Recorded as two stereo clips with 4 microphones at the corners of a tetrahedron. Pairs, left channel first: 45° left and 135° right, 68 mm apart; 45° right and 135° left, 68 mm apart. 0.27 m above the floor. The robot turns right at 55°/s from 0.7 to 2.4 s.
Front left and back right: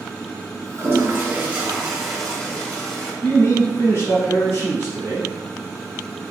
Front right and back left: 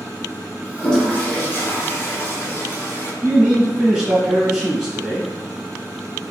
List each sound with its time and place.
0.8 s a toilet flushing: 120° right, 0.7 m; by 3.1 s 30° right, 0.7 m
3.2 s a man speaking: 55° left, 1.2 m